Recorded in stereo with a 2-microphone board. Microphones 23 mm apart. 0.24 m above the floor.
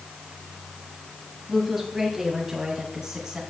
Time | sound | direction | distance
1.5 | a woman speaking | 5° right (ahead or behind) | 1.6 m